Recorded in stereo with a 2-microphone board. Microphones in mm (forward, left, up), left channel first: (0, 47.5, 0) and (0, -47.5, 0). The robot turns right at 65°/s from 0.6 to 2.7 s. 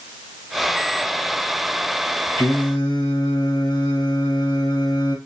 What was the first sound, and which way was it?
Singing, 50° left (ahead or behind).